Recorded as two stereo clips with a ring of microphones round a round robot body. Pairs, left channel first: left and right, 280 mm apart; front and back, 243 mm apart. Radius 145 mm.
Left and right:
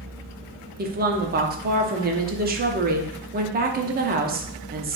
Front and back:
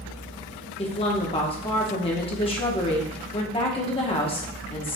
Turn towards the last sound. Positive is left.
turn(degrees=-55)